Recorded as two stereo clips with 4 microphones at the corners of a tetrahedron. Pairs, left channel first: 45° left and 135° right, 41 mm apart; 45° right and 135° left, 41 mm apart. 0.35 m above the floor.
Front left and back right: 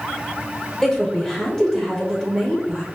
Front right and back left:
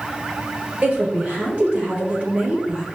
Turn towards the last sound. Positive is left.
turn(degrees=105)